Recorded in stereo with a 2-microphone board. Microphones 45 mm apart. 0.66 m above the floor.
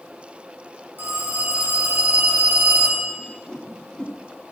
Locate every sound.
1.0 s a phone ringing: 50° right (ahead or behind), 4.5 m
3.2 s a whoosh: 20° left (ahead or behind), 1.0 m